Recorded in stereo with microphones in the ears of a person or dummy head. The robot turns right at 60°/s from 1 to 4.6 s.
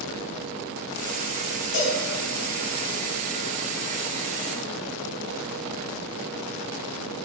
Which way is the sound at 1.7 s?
35° left (ahead or behind).